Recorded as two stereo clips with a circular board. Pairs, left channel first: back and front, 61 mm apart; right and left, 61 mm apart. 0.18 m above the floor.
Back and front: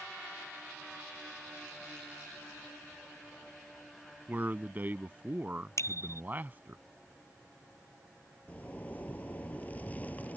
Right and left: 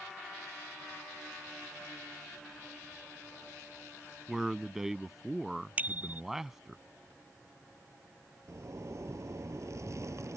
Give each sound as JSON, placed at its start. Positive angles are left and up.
{"t": 4.3, "sound": "a man speaking", "azimuth_deg": 10}
{"t": 5.8, "sound": "a bicycle bell", "azimuth_deg": 150}
{"t": 8.5, "sound": "a zipper", "azimuth_deg": 120}